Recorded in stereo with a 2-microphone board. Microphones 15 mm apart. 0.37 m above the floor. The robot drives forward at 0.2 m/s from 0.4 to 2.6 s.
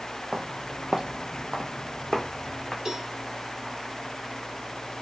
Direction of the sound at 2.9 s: 55° right (ahead or behind).